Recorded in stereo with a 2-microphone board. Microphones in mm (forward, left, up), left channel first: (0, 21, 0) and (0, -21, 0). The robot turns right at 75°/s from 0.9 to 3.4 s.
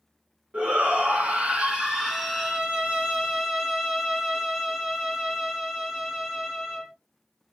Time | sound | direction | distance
0.5 | a shout | 105° right | 1.3 m
2.0 | a violin | 20° right (ahead or behind) | 1.3 m